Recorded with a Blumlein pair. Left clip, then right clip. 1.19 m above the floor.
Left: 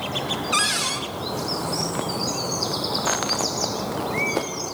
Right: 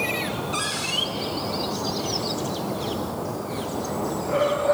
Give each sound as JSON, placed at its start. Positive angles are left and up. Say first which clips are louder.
{"t": 0.5, "sound": "a cupboard door", "louder": "left 4 dB", "azimuth_deg": 40, "distance_m": 1.3}